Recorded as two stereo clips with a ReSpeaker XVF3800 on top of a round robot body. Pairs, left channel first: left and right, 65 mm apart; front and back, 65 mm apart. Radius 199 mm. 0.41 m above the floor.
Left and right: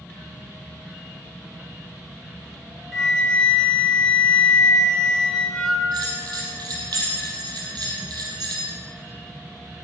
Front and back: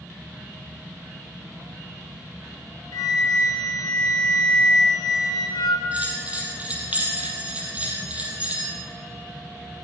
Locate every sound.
2.9 s a flute: 5° left, 1.4 m
5.9 s a bell: 110° right, 3.5 m